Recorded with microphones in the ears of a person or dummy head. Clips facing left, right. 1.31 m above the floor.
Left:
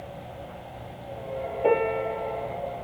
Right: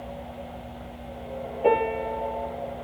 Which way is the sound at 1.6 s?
5° right (ahead or behind).